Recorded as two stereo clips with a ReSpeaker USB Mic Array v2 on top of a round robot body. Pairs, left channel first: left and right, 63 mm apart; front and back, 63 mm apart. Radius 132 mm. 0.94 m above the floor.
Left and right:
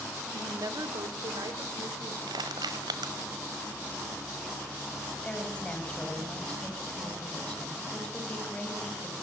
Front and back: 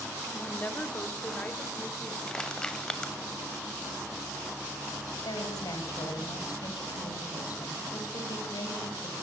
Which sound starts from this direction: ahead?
A woman speaking, at 5.2 s.